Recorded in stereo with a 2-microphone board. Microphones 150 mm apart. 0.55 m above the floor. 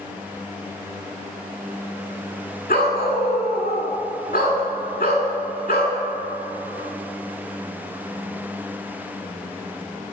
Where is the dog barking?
80° left, 1.6 m.